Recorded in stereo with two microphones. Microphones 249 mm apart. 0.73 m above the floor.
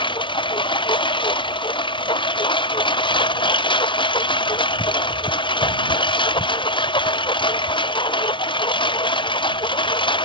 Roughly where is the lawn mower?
Centre.